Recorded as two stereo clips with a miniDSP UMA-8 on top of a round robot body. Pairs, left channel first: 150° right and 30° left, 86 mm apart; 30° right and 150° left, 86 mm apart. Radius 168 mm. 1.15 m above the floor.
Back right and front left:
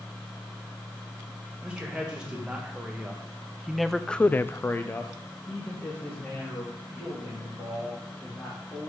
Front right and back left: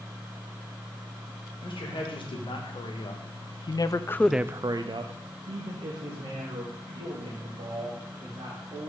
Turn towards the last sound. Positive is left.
turn(degrees=135)